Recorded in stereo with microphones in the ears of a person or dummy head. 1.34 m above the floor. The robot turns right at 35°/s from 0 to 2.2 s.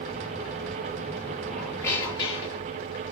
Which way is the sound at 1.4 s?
Centre (ahead or behind).